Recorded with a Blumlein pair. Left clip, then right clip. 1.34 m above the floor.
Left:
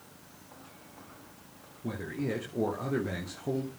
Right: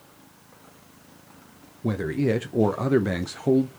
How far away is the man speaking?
About 0.8 m.